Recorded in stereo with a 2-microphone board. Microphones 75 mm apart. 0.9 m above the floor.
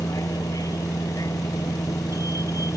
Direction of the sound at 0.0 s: 50° left (ahead or behind).